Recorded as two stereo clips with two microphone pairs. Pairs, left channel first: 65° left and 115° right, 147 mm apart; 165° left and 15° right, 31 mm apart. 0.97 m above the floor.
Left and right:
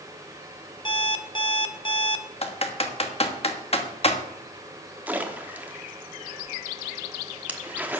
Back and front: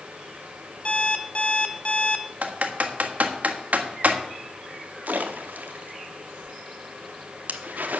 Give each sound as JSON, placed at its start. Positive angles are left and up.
{"t": 0.8, "sound": "an alarm clock", "azimuth_deg": 120, "distance_m": 0.9}
{"t": 2.4, "sound": "typing on a keyboard", "azimuth_deg": 20, "distance_m": 1.2}
{"t": 5.1, "sound": "a splash", "azimuth_deg": -35, "distance_m": 1.1}